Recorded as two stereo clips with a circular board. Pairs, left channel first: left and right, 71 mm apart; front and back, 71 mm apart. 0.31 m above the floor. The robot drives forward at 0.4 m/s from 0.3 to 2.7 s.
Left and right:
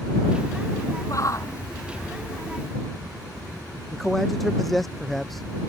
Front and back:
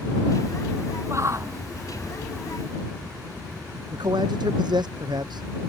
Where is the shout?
130° left; by 4.1 s 135° left.